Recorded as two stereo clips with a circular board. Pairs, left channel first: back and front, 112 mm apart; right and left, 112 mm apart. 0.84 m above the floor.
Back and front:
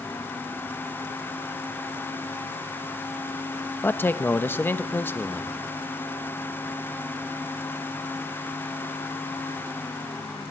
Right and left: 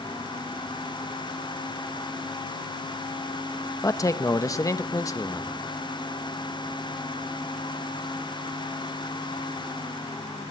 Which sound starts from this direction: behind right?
A man speaking, at 3.8 s.